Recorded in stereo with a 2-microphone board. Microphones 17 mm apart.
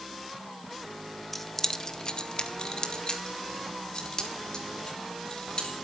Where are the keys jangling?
5° left (ahead or behind), 0.7 m; by 5.7 s 45° left (ahead or behind), 3.5 m.